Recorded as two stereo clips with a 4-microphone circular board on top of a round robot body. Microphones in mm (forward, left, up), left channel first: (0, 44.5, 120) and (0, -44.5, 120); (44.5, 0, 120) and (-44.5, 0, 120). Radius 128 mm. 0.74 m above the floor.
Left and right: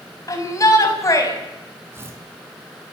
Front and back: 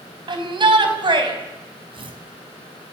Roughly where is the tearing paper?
Behind right.